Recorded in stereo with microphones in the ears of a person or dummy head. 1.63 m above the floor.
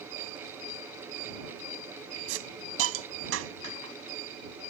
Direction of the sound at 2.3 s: 80° right.